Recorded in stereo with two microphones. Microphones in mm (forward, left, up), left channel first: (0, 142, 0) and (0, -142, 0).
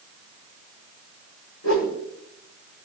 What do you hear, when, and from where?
1.6 s a whoosh: 70° left (ahead or behind), 7 m